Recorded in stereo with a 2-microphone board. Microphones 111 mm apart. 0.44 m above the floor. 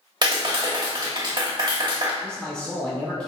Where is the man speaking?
10° left (ahead or behind), 0.8 m.